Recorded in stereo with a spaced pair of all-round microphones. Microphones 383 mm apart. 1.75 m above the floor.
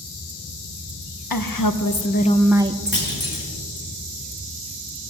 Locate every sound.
1.3 s a woman speaking: 65° left (ahead or behind), 0.9 m; by 3.0 s 35° right (ahead or behind), 0.7 m
2.9 s a clunk: 55° left (ahead or behind), 2.5 m